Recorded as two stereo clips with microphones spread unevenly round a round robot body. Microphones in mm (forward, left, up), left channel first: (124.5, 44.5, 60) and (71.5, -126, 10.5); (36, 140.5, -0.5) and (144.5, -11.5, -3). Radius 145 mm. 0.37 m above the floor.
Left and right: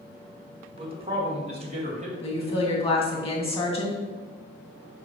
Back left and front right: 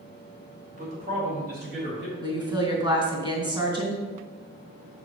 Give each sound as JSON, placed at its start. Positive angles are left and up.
{"t": 0.8, "sound": "a man speaking", "azimuth_deg": -90, "distance_m": 1.8}
{"t": 2.2, "sound": "a woman speaking", "azimuth_deg": 10, "distance_m": 2.5}